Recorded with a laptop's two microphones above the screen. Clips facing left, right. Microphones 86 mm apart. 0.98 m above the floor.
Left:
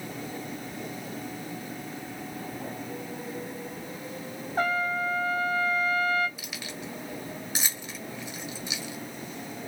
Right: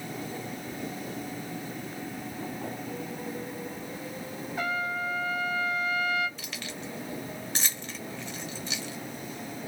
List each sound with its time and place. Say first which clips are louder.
4.6 s a trumpet: left 4 dB; 40° left (ahead or behind), 0.9 m
6.4 s keys jangling: even; 10° left (ahead or behind), 1.2 m